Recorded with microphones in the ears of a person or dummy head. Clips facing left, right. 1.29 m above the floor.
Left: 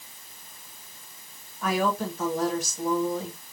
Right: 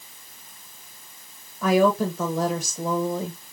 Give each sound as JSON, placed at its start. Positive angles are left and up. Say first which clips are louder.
{"t": 1.6, "sound": "a woman speaking", "louder": "right 7 dB", "side_deg": -80, "distance_m": 1.2}